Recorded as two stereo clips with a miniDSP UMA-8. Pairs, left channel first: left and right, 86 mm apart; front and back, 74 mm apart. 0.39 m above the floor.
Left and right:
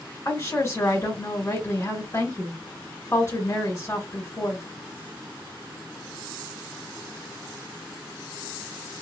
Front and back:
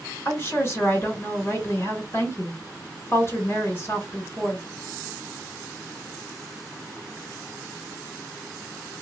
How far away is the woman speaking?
About 1.7 m.